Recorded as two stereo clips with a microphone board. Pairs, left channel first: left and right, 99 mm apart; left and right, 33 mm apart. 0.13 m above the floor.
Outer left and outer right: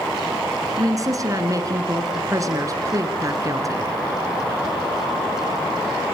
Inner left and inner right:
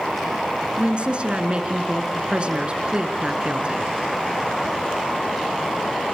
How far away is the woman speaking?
About 2 m.